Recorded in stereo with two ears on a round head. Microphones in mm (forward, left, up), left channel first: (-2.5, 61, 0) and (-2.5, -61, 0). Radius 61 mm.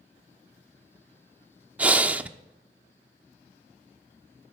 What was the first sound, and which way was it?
Breathing, 10° right (ahead or behind).